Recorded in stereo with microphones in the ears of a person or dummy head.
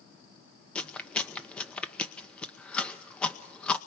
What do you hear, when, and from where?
0.8 s chewing: 10° left (ahead or behind), 0.8 m